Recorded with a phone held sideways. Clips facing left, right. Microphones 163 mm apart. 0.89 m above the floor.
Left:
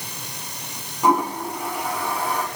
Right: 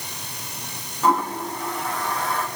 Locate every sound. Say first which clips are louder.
1.0 s a toilet flushing: left 2 dB; 15° left (ahead or behind), 1.4 m